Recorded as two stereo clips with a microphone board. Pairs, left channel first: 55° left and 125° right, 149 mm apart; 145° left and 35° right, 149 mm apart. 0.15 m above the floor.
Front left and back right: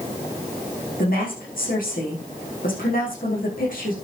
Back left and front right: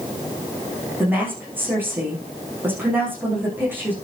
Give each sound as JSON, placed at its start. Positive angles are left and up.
{"t": 1.0, "sound": "a woman speaking", "azimuth_deg": 45, "distance_m": 7.0}